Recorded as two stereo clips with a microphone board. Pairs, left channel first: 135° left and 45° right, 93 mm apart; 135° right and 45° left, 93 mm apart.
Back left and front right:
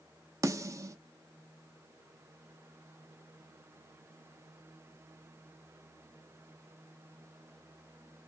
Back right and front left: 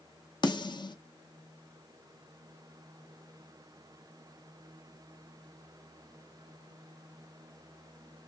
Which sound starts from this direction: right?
A snare drum, at 0.4 s.